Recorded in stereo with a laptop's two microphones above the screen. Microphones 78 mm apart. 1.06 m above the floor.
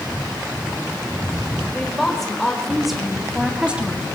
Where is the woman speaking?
5° left (ahead or behind), 5 m; by 4.1 s 20° right (ahead or behind), 2.0 m.